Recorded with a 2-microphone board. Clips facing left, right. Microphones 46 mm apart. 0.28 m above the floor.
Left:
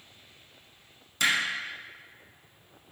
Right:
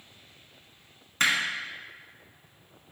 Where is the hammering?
50° right (ahead or behind), 0.9 m.